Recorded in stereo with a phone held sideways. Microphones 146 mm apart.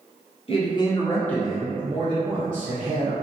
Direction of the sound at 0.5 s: 40° left (ahead or behind).